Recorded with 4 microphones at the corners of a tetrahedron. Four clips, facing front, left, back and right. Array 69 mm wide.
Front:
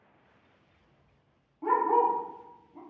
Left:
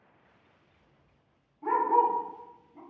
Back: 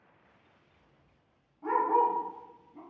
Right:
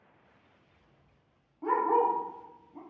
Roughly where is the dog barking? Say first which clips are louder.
Left 2 dB, front 2 dB; ahead right.